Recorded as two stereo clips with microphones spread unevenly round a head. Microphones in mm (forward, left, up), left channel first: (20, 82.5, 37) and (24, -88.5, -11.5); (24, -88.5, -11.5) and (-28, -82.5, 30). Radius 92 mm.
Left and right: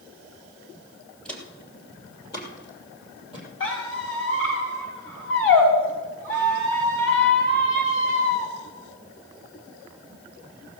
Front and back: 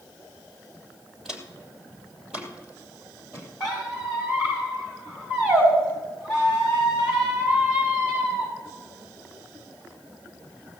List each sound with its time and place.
1.2 s footsteps: 155° left, 2.0 m; by 3.5 s 140° left, 3 m
3.6 s a squeak: 85° left, 6 m